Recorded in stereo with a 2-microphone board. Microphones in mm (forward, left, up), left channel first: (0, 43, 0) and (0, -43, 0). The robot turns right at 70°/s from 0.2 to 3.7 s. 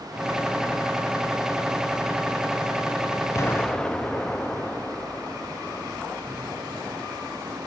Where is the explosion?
35° left (ahead or behind), 0.8 m; by 5.9 s 10° left (ahead or behind), 0.8 m.